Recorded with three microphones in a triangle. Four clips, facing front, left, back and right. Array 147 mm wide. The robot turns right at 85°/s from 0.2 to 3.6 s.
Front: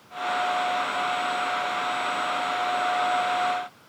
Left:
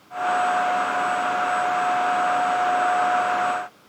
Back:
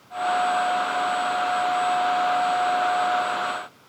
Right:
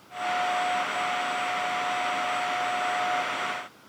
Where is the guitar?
No guitar in this recording.